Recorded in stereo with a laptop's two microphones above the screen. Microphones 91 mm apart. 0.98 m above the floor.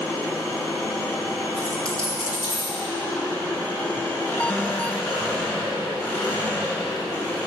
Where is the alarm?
15° left (ahead or behind), 0.7 m.